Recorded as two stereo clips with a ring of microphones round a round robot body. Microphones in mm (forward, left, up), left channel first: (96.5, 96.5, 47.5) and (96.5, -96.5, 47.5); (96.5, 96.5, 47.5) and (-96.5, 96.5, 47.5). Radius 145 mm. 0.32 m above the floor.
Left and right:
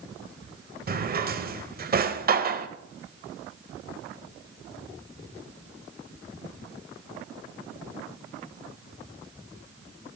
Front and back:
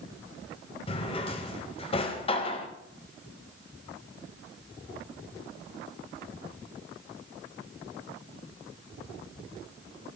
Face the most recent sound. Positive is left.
turn(degrees=-60)